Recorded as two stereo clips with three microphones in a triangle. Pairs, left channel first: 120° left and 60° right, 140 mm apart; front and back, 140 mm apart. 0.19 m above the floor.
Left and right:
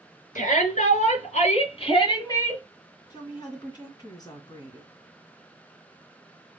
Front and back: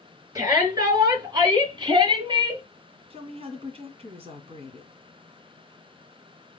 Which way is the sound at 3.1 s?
165° left.